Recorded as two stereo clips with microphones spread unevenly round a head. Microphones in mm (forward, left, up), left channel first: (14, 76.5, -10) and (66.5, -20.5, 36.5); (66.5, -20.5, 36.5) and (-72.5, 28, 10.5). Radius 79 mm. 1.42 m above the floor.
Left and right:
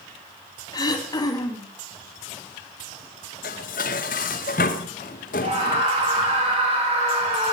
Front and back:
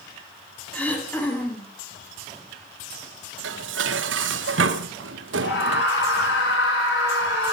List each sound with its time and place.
0.7 s throat clearing: 60° left, 2.5 m
3.4 s dishes clattering: 165° left, 0.9 m
5.4 s a scream: 35° right, 7.5 m